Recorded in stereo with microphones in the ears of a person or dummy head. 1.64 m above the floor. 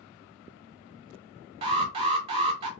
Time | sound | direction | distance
1.6 | an alarm | 30° right (ahead or behind) | 1.1 m